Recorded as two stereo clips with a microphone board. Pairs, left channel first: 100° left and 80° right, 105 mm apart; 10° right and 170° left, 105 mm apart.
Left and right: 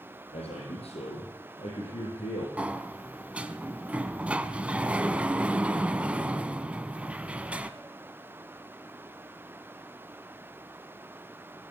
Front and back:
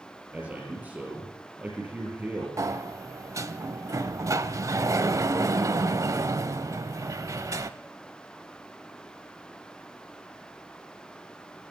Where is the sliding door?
150° right, 0.6 m.